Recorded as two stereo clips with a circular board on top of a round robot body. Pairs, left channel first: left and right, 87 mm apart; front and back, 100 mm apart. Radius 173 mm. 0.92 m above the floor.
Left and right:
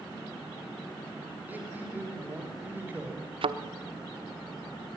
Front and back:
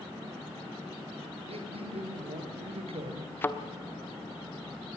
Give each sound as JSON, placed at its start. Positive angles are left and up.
{"t": 1.5, "sound": "a man speaking", "azimuth_deg": -160, "distance_m": 5.0}
{"t": 3.4, "sound": "a thud", "azimuth_deg": -70, "distance_m": 1.2}